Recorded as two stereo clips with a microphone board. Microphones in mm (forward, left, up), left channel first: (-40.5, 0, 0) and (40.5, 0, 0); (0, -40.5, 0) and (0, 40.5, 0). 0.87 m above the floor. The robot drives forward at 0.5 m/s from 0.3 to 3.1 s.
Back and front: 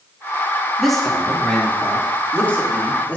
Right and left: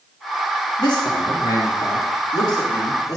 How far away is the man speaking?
About 2.5 m.